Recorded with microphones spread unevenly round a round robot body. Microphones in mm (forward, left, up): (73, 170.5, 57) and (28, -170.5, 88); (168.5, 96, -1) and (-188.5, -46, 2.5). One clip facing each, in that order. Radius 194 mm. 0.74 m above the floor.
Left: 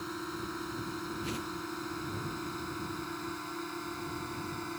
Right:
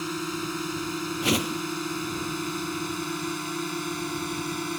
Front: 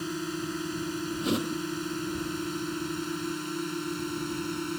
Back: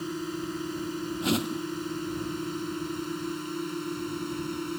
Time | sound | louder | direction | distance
0.0 | a drone | right 8 dB, even | 55° right | ?
1.2 | a whoosh | right 11 dB, back 1 dB | 80° right | ?